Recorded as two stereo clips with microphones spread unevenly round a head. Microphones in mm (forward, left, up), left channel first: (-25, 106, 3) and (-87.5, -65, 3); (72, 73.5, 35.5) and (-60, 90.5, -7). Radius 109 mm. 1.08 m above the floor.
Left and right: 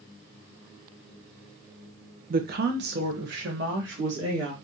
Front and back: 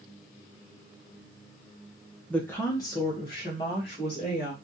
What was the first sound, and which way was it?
A woman speaking, 105° right.